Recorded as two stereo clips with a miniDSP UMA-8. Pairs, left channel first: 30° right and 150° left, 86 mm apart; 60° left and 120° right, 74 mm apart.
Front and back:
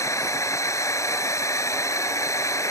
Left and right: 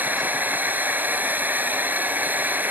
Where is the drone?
65° right.